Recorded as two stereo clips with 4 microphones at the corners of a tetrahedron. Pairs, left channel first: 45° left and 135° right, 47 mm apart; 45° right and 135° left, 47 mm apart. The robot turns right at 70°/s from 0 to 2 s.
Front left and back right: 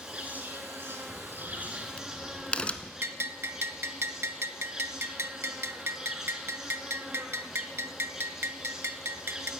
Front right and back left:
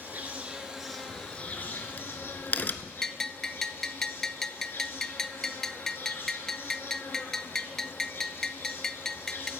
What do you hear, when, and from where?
0.0 s an insect: 160° left, 1.7 m; by 9.6 s 60° right, 1.7 m
1.1 s a crack: 75° right, 0.6 m; by 2.9 s 15° right, 0.6 m
3.0 s a bell: 125° right, 0.5 m